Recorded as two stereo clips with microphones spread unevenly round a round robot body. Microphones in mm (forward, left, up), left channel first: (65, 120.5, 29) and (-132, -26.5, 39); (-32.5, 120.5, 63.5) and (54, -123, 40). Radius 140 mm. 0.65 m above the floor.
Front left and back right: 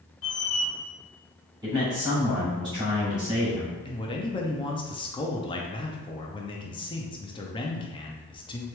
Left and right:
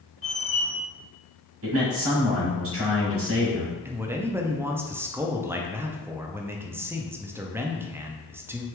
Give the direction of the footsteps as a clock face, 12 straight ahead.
No footsteps in this recording.